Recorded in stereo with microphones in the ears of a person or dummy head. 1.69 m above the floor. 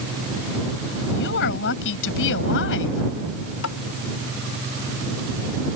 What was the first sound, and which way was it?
A woman speaking, 65° left (ahead or behind).